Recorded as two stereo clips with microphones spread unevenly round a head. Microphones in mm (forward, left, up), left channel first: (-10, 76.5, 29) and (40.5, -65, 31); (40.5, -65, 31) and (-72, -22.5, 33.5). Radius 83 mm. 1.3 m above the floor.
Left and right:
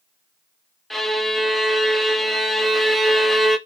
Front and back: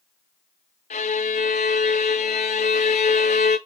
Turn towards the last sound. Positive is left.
turn(degrees=20)